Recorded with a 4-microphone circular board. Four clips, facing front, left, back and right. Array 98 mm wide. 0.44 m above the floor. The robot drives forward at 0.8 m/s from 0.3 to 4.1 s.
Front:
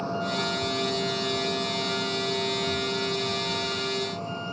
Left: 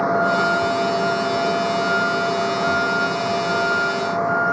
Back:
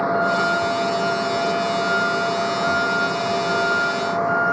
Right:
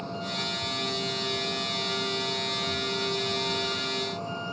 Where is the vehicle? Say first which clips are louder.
Left 17 dB, back 10 dB; 120° left; by 4.5 s 130° left.